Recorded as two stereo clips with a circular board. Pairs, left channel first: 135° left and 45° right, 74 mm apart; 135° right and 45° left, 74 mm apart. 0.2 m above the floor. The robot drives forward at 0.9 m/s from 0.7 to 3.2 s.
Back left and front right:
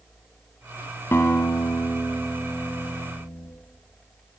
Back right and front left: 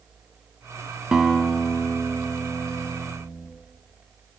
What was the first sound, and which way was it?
A guitar, 115° left.